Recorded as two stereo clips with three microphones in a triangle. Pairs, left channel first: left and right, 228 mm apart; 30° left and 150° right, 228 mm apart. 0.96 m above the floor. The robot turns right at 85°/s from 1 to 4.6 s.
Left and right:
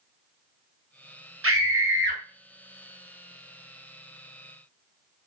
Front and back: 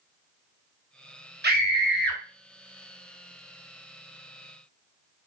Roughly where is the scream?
Right.